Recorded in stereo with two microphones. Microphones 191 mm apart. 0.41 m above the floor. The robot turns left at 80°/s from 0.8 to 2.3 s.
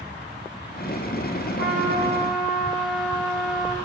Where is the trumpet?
120° right, 5 m; by 3.8 s straight behind, 5 m.